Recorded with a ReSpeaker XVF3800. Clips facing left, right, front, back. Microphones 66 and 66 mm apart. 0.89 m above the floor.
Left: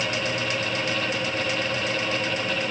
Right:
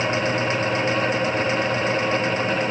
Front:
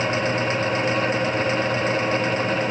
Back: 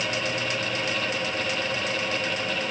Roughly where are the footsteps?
I don't hear footsteps.